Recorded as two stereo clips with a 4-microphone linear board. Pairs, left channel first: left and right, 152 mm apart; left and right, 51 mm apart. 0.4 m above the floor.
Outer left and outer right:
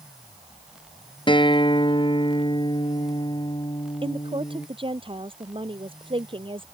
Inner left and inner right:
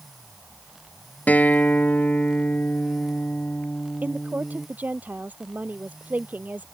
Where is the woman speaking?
35° right (ahead or behind).